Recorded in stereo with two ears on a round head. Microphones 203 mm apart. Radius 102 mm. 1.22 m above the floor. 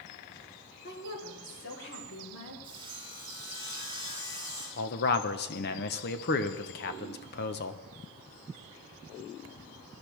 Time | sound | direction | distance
0.8 | a woman speaking | 45° left (ahead or behind) | 3 m
2.6 | sawing | 20° left (ahead or behind) | 6.5 m
4.8 | a man speaking | 45° left (ahead or behind) | 1.0 m